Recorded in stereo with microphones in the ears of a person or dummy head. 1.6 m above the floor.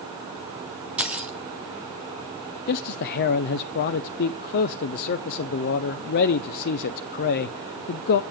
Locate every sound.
1.0 s keys jangling: 10° right (ahead or behind), 0.6 m
2.7 s a man speaking: 60° left (ahead or behind), 0.6 m